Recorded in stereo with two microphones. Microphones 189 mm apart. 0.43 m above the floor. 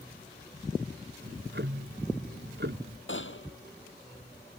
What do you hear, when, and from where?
1.2 s ticking: 70° right (ahead or behind)
3.1 s a gunshot: 85° left